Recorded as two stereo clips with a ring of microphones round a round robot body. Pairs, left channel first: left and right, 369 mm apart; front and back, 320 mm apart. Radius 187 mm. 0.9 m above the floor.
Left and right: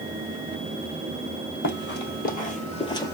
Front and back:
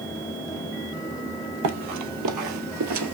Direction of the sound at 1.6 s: 145° left.